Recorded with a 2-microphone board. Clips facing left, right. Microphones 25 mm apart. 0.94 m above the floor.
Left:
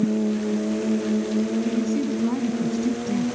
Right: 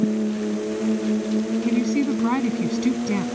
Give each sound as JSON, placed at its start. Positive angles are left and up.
{"t": 1.6, "sound": "a woman speaking", "side_deg": -45}